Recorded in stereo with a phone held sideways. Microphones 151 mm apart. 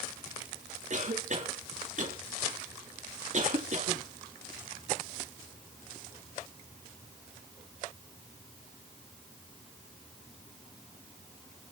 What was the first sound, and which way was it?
A cough, 55° right (ahead or behind).